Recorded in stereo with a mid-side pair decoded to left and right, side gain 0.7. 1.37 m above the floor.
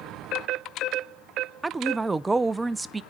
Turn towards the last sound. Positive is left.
turn(degrees=-15)